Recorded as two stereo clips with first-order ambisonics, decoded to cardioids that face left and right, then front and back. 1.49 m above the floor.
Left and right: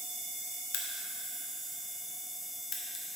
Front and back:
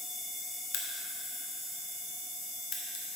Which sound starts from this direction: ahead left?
A crack, at 0.7 s.